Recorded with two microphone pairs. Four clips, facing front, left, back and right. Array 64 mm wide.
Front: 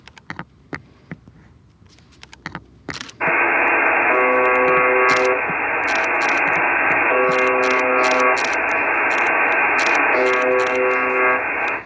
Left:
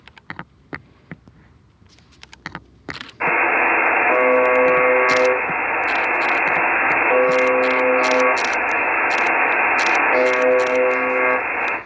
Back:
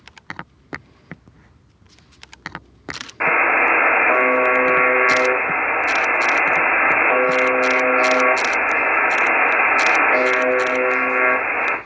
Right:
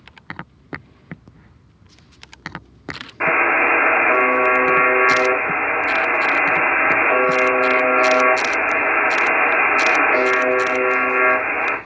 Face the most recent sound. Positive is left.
turn(degrees=-155)